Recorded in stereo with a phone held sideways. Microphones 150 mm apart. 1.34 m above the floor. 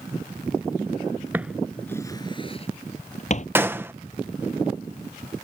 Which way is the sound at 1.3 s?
15° right (ahead or behind).